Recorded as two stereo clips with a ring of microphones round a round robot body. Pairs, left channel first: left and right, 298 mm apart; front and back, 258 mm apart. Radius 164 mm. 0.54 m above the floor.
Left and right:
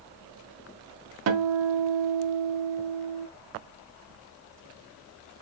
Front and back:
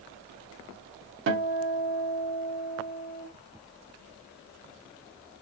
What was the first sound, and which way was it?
A guitar, 130° right.